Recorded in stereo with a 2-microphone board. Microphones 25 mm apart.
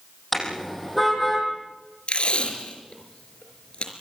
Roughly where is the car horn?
Centre.